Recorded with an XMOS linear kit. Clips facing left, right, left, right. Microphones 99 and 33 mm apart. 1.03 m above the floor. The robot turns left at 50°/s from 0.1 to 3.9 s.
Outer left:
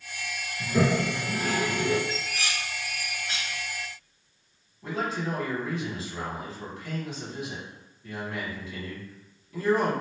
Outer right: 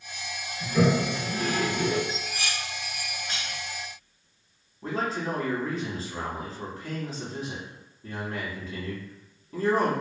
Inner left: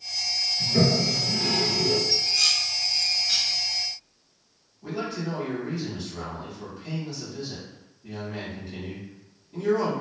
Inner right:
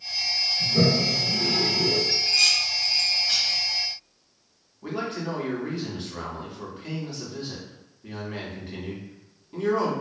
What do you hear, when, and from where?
0.6 s a toilet flushing: 45° left (ahead or behind), 0.8 m; by 2.0 s 10° left (ahead or behind), 0.8 m
2.1 s dishes clattering: 50° right (ahead or behind), 1.7 m; by 3.6 s 25° left (ahead or behind), 1.7 m
4.8 s a man speaking: 40° right (ahead or behind), 1.0 m